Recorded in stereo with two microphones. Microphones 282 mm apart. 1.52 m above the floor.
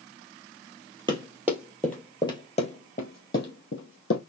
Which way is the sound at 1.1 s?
15° right (ahead or behind).